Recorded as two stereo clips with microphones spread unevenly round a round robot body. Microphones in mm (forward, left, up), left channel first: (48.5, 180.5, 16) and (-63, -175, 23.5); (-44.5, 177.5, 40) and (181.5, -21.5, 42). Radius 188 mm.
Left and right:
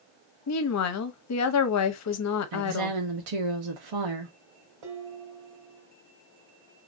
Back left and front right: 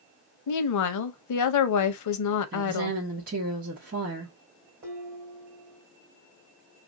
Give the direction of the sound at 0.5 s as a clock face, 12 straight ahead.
8 o'clock.